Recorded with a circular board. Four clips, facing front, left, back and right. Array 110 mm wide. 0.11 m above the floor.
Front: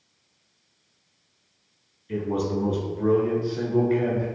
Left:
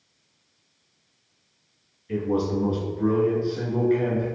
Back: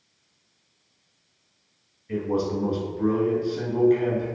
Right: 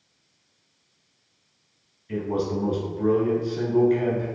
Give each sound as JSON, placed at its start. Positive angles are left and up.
{"t": 2.1, "sound": "a man speaking", "azimuth_deg": 175, "distance_m": 1.7}